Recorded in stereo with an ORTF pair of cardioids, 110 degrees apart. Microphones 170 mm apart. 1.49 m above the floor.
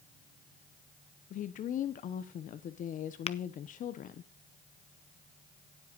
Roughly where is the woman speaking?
Ahead left.